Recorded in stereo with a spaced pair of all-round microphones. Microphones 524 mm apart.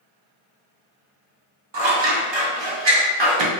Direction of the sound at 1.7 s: 55° right (ahead or behind).